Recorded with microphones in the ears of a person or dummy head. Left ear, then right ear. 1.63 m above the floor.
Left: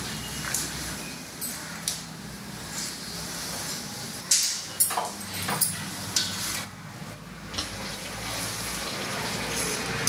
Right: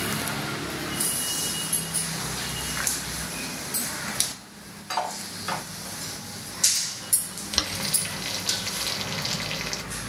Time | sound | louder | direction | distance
4.9 | cutlery clinking | right 4 dB | 5° right (ahead or behind) | 1.6 m
7.5 | boiling | right 7 dB | 40° right (ahead or behind) | 0.9 m